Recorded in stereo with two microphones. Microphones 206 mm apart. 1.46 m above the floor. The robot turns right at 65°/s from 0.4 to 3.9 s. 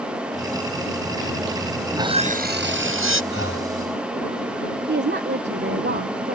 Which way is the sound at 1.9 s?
170° right.